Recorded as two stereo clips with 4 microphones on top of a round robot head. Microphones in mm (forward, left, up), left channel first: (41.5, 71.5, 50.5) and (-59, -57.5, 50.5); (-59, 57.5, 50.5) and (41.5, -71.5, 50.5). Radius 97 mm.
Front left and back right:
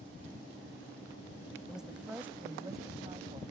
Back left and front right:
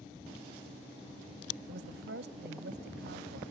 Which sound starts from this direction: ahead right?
A woman speaking, at 1.7 s.